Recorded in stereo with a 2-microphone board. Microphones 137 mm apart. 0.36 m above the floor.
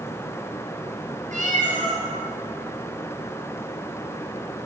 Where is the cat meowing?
70° right (ahead or behind), 4 m.